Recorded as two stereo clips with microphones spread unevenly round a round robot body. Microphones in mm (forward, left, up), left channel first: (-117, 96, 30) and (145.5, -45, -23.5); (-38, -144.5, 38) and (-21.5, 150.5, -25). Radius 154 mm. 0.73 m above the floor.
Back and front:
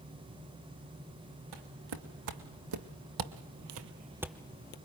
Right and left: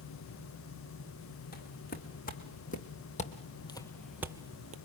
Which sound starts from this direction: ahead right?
Footsteps, at 1.5 s.